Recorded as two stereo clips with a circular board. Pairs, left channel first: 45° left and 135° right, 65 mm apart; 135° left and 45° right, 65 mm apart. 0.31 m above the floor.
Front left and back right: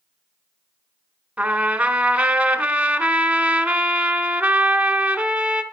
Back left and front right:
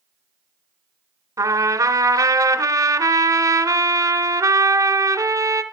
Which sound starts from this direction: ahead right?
A trumpet, at 1.4 s.